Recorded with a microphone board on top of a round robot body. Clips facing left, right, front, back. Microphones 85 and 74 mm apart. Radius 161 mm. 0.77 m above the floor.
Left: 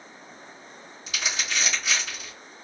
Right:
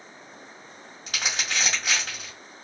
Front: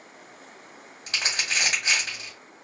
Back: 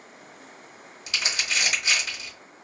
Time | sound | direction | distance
1.1 | crumpling | 50° right | 1.7 m